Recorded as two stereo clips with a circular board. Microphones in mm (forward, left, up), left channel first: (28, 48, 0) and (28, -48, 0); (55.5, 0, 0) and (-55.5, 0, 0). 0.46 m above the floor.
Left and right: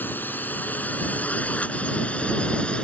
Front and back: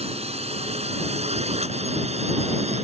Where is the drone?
160° left; by 2.8 s 170° left.